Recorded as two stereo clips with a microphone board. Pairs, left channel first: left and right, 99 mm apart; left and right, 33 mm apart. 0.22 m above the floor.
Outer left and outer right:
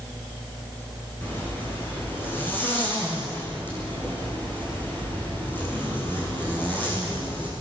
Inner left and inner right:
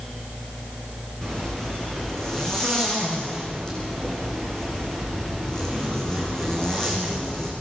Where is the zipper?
20° left (ahead or behind), 9 m.